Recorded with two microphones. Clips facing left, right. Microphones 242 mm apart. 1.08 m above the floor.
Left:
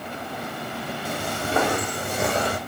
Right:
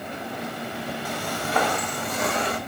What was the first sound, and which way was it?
Footsteps, 25° left (ahead or behind).